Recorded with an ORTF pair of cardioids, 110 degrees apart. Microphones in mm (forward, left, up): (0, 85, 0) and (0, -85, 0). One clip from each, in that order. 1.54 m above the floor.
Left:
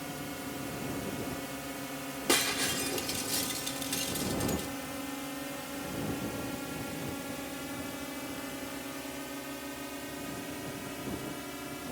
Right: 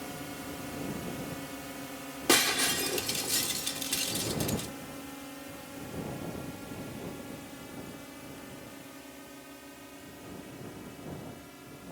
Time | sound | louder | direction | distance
0.0 | a drone | left 1 dB | 5° left | ?
2.3 | breaking glass | right 3 dB | 25° right | ?